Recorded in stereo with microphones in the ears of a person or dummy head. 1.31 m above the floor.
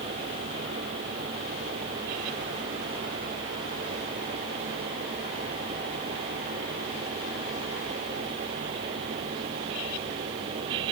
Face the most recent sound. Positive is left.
No sound to turn to.